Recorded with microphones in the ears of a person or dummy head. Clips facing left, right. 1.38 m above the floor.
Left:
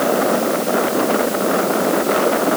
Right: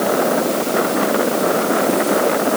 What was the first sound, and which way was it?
Only background noise.